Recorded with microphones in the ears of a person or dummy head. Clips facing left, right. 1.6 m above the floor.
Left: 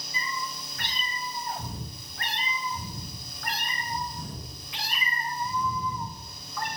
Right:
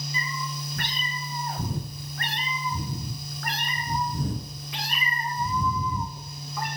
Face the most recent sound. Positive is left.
turn(degrees=-10)  # may be behind; listen again after turning